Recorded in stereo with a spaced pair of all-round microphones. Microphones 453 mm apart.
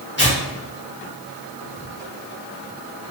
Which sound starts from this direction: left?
Tearing paper, at 0.2 s.